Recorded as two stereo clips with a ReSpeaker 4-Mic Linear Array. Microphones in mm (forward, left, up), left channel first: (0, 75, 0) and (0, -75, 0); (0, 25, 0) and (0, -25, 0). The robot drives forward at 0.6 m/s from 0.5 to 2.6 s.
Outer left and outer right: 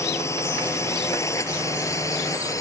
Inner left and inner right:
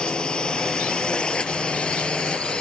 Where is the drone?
15° left (ahead or behind); by 2.6 s 20° left (ahead or behind).